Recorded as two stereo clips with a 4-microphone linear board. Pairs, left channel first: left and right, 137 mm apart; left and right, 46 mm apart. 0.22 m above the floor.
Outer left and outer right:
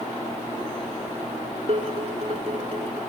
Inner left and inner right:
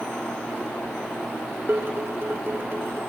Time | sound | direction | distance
1.7 | dishes clattering | 50° right (ahead or behind) | 1.5 m